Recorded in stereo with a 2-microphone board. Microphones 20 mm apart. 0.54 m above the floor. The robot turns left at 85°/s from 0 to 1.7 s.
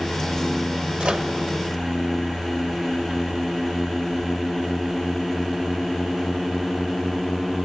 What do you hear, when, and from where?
1.0 s a microwave: 70° right (ahead or behind), 1.3 m